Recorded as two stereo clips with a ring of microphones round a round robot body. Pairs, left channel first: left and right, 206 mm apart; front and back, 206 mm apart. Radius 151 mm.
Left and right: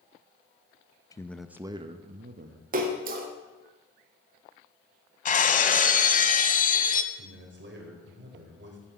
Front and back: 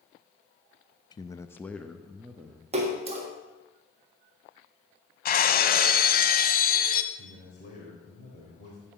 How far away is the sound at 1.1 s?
About 0.8 m.